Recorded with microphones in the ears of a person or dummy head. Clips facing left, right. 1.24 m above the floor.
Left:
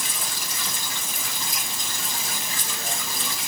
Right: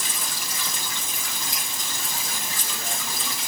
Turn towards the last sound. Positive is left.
No sound to turn to.